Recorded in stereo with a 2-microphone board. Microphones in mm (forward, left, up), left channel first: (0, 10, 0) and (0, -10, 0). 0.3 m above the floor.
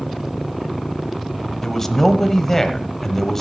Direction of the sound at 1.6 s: 15° left (ahead or behind).